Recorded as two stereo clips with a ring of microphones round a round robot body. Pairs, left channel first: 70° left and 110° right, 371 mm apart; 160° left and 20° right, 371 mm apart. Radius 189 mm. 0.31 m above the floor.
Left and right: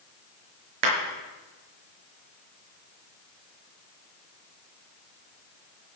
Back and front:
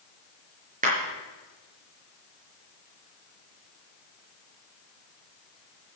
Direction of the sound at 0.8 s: 90° right.